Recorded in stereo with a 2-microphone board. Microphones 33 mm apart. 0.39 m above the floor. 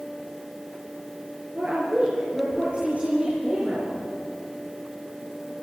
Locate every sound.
1.6 s a woman speaking: 40° right (ahead or behind), 5.5 m